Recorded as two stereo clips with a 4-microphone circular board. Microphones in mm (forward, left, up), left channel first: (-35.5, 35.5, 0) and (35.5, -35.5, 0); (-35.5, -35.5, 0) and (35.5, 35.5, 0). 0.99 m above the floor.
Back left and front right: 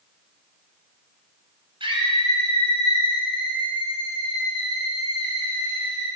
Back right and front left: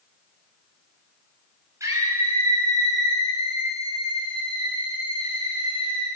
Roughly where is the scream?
Ahead.